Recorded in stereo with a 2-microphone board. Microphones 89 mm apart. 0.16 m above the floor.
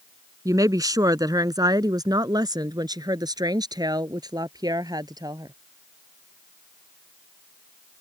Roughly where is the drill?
I don't hear a drill.